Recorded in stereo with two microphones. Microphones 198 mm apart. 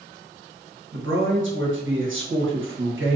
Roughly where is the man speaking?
Right.